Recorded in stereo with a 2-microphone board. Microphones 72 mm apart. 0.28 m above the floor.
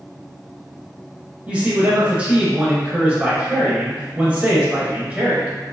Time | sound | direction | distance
1.5 | a man speaking | 15° right (ahead or behind) | 0.9 m